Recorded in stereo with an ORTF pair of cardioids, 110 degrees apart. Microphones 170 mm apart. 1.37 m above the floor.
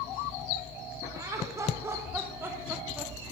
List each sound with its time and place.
1.1 s laughter: 20° right, 4.5 m; by 3.1 s 5° right, 3 m